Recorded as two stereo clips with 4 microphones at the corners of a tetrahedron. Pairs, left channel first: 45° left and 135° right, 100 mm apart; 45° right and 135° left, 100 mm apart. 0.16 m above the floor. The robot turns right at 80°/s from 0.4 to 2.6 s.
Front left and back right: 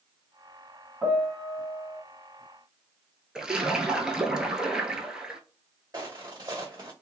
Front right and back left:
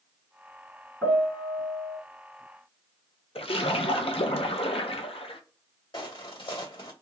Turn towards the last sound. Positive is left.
turn(degrees=-85)